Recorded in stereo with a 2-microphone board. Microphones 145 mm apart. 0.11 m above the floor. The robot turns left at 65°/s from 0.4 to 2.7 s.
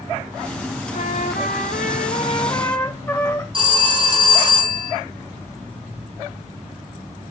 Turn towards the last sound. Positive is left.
turn(degrees=-35)  # may be behind; listen again after turning